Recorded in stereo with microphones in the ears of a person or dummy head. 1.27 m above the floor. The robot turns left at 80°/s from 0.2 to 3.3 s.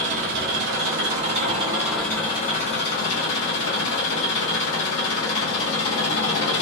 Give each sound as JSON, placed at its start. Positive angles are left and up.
{"t": 0.0, "sound": "an engine running", "azimuth_deg": -45, "distance_m": 0.9}